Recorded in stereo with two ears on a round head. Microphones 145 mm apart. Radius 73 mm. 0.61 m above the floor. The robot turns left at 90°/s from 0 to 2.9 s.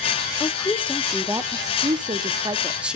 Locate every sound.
0.4 s a woman speaking: 25° left (ahead or behind), 0.6 m; by 3.0 s 5° right (ahead or behind), 0.6 m